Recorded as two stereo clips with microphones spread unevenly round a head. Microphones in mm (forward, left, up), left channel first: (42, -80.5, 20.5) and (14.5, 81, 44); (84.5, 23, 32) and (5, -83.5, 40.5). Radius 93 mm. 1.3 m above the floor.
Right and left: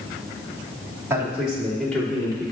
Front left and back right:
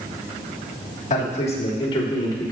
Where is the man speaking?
25° left, 2 m; by 2.5 s 10° right, 3 m.